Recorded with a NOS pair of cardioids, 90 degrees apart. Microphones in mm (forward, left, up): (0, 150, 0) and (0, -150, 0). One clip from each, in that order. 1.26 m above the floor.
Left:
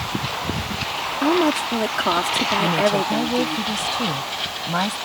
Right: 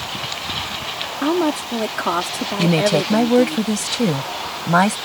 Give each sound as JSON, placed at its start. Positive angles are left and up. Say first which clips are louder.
{"t": 1.2, "sound": "a woman speaking", "louder": "left 1 dB", "azimuth_deg": 5}
{"t": 2.6, "sound": "a woman speaking", "louder": "right 1 dB", "azimuth_deg": -55}